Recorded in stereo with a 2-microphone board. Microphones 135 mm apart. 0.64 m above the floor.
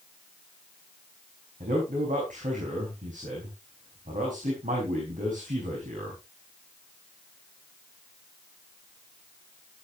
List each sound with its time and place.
1.6 s a man speaking: 75° right (ahead or behind), 4.5 m